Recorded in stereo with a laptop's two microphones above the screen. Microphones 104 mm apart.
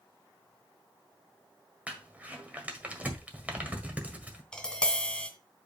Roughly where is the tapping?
Centre.